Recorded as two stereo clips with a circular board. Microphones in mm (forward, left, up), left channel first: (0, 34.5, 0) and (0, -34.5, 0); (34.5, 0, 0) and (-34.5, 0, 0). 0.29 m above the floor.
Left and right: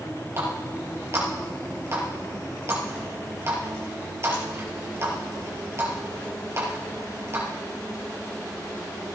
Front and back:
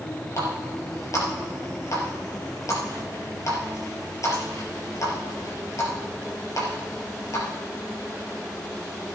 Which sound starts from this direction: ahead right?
A running tap, at 0.4 s.